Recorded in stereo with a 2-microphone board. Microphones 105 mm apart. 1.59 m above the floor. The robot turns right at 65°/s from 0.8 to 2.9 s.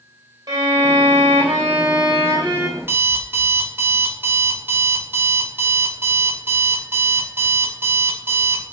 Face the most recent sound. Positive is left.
turn(degrees=-20)  # may be behind; listen again after turning